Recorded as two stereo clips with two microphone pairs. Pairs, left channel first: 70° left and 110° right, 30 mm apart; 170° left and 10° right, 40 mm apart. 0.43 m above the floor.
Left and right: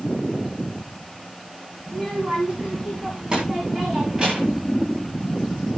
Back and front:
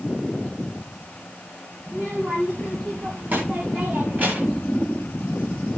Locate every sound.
1.9 s a child speaking: 50° right, 3 m